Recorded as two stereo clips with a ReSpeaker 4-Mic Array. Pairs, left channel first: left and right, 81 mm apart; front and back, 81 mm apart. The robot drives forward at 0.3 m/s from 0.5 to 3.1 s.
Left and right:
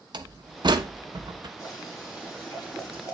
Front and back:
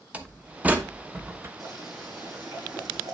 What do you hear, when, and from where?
0.1 s a door slam: 110° right, 1.0 m; by 1.5 s 120° right, 1.2 m
1.6 s boiling: 140° left, 7 m